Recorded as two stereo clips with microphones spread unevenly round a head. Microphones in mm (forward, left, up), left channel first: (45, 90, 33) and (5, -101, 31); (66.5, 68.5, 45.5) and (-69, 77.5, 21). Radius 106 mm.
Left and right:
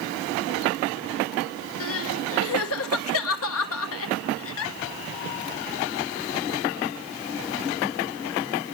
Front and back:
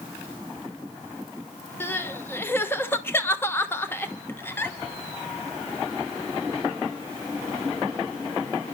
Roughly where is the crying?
Left.